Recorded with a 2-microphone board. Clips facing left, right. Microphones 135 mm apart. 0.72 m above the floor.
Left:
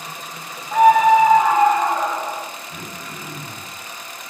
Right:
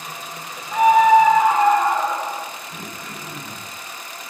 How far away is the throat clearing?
About 1.4 m.